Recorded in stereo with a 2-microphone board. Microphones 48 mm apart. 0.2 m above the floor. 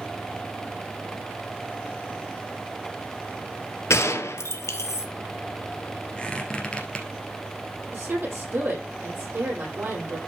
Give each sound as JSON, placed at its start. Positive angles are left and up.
{"t": 3.9, "sound": "a gunshot", "side_deg": 75, "distance_m": 1.3}
{"t": 6.2, "sound": "a squeak", "side_deg": 15, "distance_m": 2.5}
{"t": 7.9, "sound": "a woman speaking", "side_deg": -50, "distance_m": 6.5}